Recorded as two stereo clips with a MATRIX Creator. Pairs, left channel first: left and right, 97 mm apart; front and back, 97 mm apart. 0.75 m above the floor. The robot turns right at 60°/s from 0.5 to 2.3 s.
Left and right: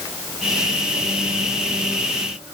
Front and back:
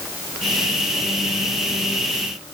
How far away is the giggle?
No giggle in this recording.